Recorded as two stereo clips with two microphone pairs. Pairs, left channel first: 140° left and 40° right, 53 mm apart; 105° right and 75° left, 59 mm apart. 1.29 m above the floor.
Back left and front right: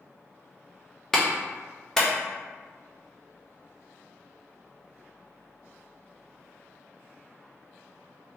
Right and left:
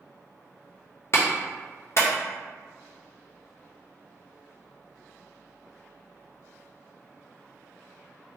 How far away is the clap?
About 0.6 m.